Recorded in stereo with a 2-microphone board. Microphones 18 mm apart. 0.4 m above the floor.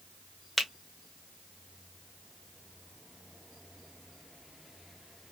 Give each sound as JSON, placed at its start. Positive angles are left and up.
{"t": 0.6, "sound": "a finger snap", "side_deg": 0, "distance_m": 0.8}